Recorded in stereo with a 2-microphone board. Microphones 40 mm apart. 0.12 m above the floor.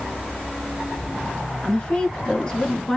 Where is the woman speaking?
35° left (ahead or behind), 1.3 m; by 3.0 s 10° left (ahead or behind), 1.3 m.